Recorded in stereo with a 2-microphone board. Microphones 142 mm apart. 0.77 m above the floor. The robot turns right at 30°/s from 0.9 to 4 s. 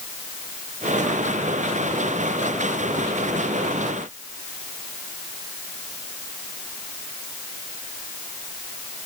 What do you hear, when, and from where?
Only background noise.